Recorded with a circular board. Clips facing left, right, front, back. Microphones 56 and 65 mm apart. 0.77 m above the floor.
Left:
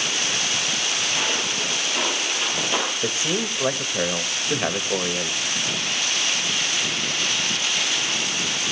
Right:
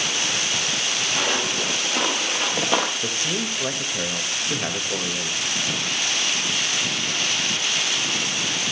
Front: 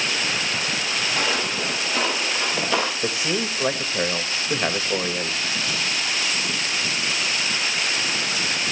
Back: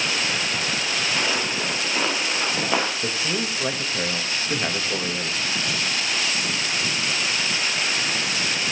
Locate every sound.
1.1 s footsteps: 95° right, 6.5 m; by 2.9 s 105° right, 5.5 m
3.0 s a man speaking: 50° left, 1.1 m